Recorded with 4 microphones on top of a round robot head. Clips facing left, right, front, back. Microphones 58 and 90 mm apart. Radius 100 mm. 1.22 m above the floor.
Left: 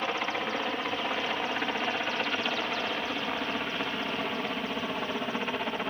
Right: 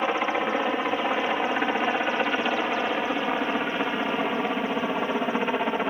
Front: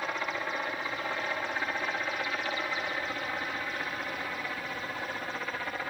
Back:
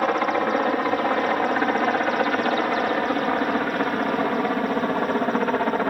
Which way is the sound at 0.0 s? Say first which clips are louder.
Right 6 dB, back 13 dB; 160° right.